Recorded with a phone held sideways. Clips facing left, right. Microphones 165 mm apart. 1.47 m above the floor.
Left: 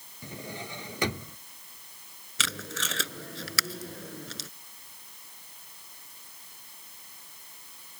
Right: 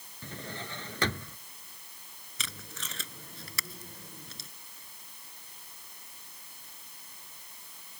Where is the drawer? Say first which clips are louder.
Left 2 dB; 15° left (ahead or behind).